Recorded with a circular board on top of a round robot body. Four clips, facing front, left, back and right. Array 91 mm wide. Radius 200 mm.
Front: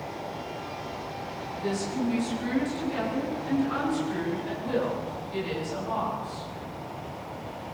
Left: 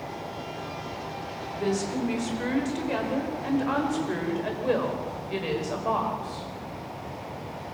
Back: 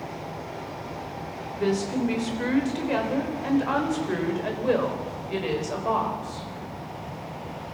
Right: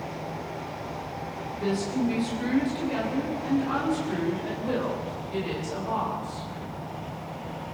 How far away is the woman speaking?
About 4.5 m.